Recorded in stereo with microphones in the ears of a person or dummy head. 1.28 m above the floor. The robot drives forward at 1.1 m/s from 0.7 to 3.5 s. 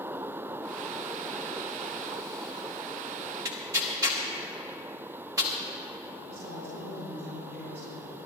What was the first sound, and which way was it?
Tearing paper, 20° right (ahead or behind).